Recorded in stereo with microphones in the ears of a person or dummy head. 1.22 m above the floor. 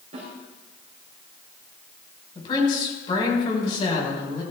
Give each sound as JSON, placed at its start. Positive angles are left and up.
{"t": 0.1, "sound": "a snare drum", "side_deg": -45, "distance_m": 4.0}
{"t": 2.4, "sound": "a woman speaking", "side_deg": 40, "distance_m": 5.5}